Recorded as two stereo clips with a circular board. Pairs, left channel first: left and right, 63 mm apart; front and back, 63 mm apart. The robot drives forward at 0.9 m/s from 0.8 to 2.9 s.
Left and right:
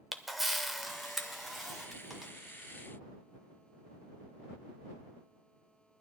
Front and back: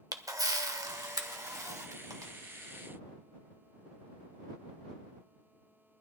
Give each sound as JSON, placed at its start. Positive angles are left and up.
{"t": 0.1, "sound": "a camera shutter", "azimuth_deg": 180, "distance_m": 0.8}